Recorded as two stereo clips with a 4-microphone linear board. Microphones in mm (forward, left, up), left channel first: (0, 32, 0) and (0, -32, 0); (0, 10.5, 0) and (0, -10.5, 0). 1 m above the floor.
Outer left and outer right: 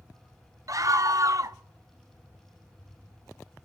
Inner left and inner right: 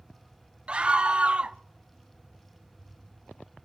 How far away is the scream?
About 0.7 m.